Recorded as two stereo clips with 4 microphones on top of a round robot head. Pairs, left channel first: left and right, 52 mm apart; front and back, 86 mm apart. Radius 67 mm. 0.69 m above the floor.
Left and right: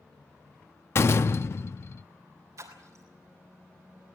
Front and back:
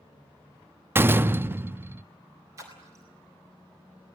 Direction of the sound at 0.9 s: 120° left.